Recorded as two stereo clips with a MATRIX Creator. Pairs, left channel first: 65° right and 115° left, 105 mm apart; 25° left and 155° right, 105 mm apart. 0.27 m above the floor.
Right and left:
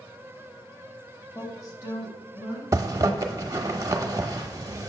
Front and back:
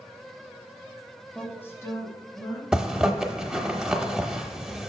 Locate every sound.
1.4 s a woman speaking: 45° right, 1.0 m; by 2.6 s 25° right, 2 m
2.7 s a zipper: 125° left, 0.7 m